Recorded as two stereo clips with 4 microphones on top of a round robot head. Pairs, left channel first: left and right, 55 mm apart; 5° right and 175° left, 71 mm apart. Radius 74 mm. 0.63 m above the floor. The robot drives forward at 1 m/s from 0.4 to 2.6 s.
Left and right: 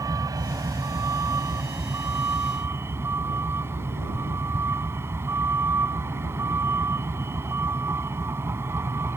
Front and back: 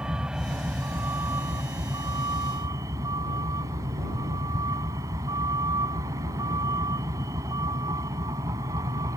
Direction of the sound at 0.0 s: 105° right.